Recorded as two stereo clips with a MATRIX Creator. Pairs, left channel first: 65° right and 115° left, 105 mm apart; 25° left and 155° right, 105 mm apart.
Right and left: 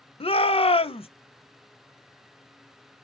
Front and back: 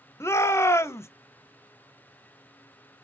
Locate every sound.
0.2 s a shout: 40° right, 0.6 m